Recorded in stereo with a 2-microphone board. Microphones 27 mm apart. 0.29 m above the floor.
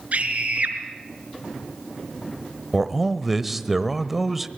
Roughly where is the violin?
I don't hear a violin.